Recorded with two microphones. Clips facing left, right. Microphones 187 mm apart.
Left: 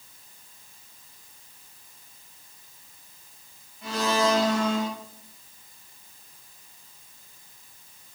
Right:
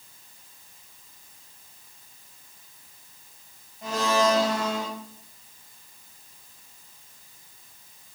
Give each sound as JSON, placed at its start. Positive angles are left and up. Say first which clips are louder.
{"t": 3.8, "sound": "a blender", "louder": "right 1 dB", "side_deg": -45, "distance_m": 3.5}